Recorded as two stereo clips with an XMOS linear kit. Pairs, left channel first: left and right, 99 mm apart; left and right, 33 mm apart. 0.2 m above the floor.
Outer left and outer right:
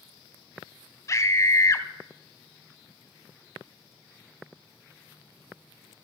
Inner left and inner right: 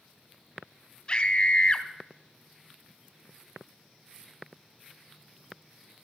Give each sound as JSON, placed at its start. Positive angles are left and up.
{"t": 1.1, "sound": "a scream", "side_deg": 35, "distance_m": 1.1}